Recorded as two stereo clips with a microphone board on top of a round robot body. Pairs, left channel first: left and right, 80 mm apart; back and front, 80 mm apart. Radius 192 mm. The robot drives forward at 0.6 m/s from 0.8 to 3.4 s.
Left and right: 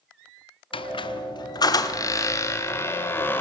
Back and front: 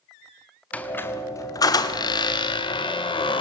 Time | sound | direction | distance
0.7 | a squeak | 105° left | 0.8 m